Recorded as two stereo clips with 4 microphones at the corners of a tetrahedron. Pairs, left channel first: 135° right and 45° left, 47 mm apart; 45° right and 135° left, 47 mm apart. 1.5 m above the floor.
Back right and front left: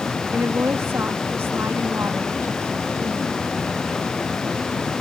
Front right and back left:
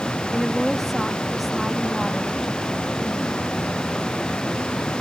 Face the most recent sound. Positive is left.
turn(degrees=45)